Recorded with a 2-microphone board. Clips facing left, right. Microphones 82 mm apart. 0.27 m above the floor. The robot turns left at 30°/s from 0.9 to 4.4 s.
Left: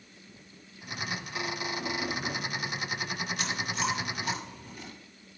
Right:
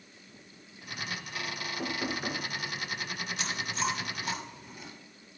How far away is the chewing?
About 5 m.